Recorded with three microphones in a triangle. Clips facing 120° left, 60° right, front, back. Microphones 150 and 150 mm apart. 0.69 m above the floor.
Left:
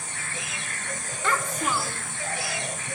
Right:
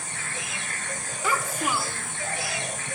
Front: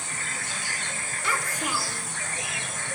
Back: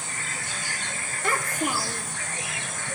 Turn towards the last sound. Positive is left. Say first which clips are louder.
# even, back 4 dB
turn(degrees=-140)